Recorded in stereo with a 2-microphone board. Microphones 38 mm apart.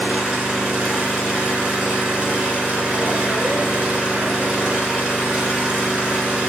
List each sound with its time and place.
0.0 s an engine running: 15° right (ahead or behind), 2 m